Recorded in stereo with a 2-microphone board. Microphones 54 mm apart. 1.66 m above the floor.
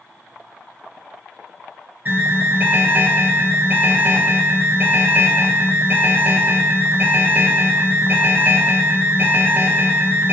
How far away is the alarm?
About 1.2 m.